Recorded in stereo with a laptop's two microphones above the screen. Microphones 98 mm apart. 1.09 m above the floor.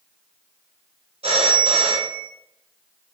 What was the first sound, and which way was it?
A phone ringing, 80° right.